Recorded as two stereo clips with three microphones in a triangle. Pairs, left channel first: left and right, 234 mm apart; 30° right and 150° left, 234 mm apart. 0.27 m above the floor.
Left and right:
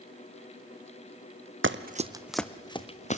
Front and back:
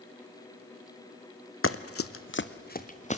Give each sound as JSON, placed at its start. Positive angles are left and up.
{"t": 1.6, "sound": "running footsteps", "azimuth_deg": -55, "distance_m": 0.9}